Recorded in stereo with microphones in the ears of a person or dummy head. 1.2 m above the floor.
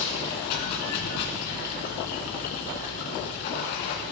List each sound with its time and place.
0.0 s running water: 60° left (ahead or behind), 2 m